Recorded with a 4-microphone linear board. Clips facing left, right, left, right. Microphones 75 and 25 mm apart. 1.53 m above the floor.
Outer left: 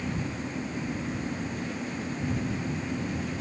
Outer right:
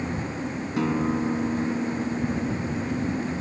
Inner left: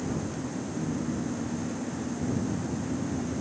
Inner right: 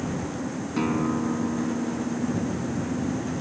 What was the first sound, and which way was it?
A guitar, 80° right.